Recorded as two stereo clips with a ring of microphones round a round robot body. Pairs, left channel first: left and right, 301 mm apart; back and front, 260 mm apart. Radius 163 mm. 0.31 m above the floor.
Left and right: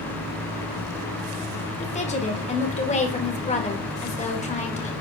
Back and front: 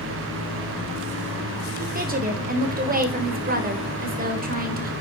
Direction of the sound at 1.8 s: 35° left.